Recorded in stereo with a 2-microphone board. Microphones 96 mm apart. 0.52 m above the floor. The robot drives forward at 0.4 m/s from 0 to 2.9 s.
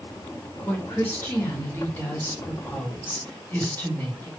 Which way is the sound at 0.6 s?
25° left (ahead or behind).